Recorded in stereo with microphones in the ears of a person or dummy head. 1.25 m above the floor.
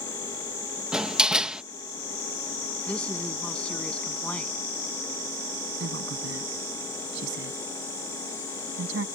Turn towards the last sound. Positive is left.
turn(degrees=-70)  # may be behind; listen again after turning